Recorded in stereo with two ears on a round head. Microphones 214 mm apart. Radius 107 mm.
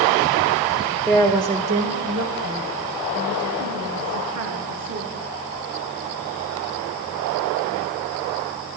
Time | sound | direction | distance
1.1 | a woman speaking | 5° left (ahead or behind) | 1.1 m